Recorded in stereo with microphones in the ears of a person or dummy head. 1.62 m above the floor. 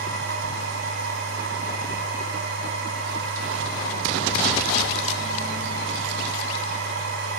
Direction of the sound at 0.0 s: 55° right (ahead or behind).